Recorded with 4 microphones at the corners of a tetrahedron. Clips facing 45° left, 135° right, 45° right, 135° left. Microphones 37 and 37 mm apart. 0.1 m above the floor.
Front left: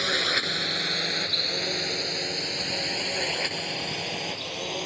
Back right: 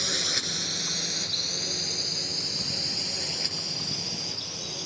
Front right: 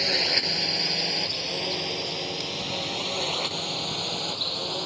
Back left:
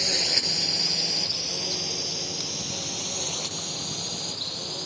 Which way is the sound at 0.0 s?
10° left.